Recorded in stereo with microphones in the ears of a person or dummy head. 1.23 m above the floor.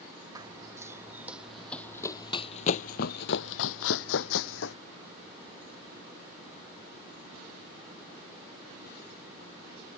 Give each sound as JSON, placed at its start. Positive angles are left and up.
{"t": 0.3, "sound": "running footsteps", "side_deg": -20}